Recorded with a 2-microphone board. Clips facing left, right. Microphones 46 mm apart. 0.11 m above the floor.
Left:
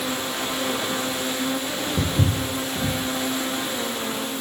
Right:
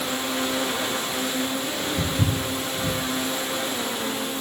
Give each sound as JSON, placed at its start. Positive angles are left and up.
{"t": 2.0, "sound": "footsteps", "side_deg": 80, "distance_m": 8.5}